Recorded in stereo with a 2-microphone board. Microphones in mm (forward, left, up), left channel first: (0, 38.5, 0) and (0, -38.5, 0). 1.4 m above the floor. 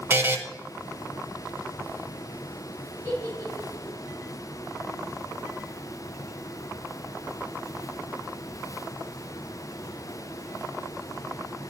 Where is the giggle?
40° left (ahead or behind), 3 m.